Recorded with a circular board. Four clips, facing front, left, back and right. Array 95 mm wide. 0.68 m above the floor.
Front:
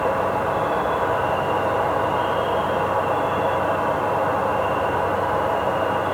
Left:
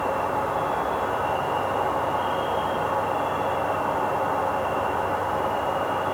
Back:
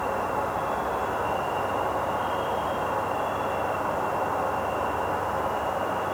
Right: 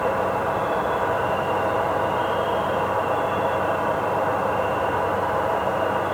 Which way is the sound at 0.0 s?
40° right.